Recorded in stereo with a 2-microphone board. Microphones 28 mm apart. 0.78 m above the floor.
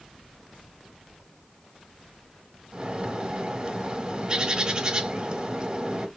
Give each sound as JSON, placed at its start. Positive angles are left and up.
{"t": 2.7, "sound": "a bird", "side_deg": -35, "distance_m": 1.7}